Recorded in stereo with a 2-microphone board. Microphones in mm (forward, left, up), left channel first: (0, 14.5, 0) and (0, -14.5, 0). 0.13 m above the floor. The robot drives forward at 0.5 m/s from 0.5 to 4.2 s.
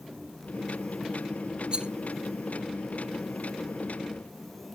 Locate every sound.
1.7 s a rattle: 30° right (ahead or behind), 0.7 m; by 1.9 s 35° right (ahead or behind), 0.7 m